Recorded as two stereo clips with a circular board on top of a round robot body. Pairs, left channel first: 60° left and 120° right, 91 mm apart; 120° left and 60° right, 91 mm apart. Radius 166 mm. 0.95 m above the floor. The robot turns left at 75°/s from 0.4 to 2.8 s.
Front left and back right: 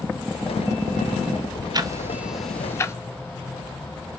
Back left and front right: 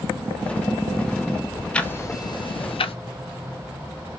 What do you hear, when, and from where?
1.7 s ticking: 160° right, 0.6 m; by 3.0 s 120° left, 0.6 m